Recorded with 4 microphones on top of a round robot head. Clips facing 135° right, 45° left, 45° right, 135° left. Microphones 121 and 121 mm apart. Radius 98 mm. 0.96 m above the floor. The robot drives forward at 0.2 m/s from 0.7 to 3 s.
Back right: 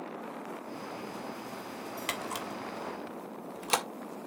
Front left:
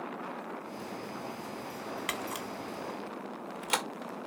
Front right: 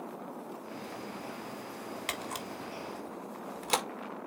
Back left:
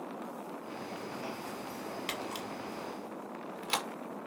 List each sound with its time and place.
2.1 s a camera shutter: 75° right, 1.7 m; by 3.9 s 85° right, 1.7 m